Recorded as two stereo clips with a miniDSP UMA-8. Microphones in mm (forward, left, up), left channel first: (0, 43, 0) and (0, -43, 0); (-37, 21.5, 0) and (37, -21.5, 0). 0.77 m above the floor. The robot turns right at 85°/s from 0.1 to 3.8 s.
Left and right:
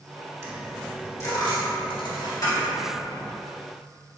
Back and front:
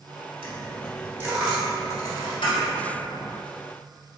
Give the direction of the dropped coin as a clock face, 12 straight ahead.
1 o'clock.